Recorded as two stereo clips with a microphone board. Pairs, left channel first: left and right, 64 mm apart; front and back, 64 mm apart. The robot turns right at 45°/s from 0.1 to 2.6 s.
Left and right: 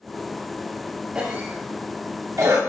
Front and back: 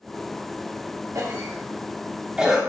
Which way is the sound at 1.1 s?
165° right.